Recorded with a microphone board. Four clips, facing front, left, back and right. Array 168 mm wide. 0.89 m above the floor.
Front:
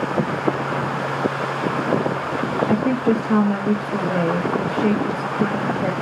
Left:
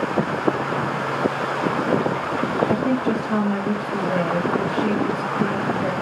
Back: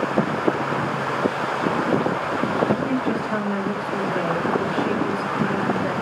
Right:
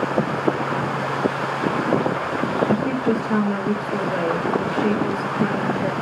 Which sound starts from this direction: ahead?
A woman speaking, at 2.7 s.